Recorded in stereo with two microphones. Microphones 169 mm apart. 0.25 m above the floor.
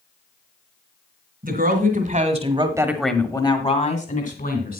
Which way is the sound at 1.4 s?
60° right (ahead or behind).